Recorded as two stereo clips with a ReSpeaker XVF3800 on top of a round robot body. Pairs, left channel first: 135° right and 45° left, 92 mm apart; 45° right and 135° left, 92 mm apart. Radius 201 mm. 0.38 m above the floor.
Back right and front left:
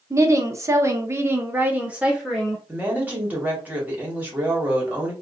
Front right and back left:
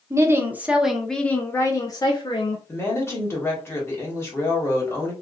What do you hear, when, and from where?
0.1 s a woman speaking: 90° left, 1.0 m; by 2.6 s 40° right, 1.2 m
2.7 s a woman speaking: 10° right, 1.6 m